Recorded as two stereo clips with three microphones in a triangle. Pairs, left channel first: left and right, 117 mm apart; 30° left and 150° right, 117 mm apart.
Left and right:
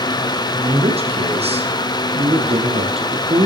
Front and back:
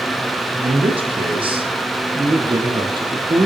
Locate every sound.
0.6 s a man speaking: 115° right, 5.5 m; by 3.5 s 105° right, 3.5 m